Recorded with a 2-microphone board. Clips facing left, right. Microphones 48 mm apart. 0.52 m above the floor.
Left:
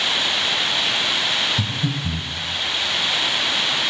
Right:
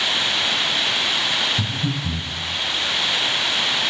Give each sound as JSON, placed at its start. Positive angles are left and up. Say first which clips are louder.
{"t": 1.6, "sound": "breathing", "louder": "even", "side_deg": 15, "distance_m": 1.6}